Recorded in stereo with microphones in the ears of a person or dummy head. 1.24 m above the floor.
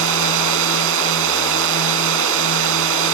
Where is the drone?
70° right (ahead or behind).